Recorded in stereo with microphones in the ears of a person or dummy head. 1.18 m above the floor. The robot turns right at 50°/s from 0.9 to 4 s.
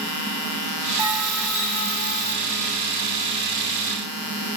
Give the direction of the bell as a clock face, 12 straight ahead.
1 o'clock.